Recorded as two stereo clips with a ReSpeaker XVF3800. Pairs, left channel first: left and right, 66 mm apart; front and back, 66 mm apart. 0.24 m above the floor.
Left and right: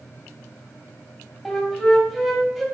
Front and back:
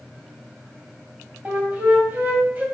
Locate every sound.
1.4 s a flute: 175° right, 1.2 m